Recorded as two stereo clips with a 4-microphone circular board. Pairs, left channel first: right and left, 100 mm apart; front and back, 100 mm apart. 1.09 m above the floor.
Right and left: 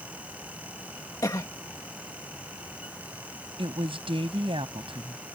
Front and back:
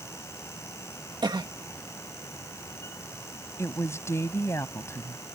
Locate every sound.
1.2 s a cough: 140° right
3.6 s a woman speaking: 60° left